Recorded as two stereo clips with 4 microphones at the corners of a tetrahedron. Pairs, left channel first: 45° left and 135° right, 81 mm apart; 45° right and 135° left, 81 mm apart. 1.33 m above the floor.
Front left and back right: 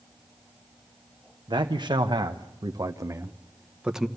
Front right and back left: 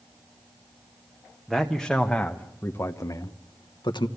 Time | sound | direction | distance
1.5 | a man speaking | 140° right | 1.2 m